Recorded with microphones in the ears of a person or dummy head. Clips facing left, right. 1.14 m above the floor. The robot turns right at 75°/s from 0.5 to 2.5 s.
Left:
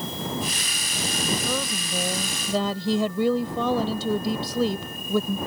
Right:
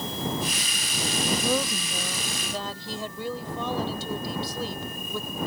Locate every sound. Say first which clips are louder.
1.3 s a woman speaking: right 2 dB; 20° right; by 5.4 s 70° left